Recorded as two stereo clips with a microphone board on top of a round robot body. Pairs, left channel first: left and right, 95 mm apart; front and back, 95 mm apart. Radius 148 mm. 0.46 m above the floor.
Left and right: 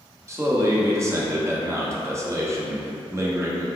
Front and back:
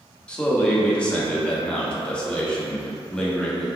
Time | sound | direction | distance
0.3 | a man speaking | 70° right | 1.0 m